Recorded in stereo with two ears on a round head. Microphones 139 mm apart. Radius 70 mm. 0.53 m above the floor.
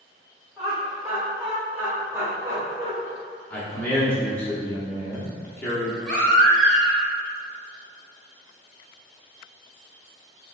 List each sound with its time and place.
0.6 s laughter: centre (ahead or behind), 2.0 m; by 2.9 s 25° right (ahead or behind), 1.5 m
3.5 s a man speaking: 10° left (ahead or behind), 0.8 m
6.0 s a baby crying: 5° left (ahead or behind), 0.9 m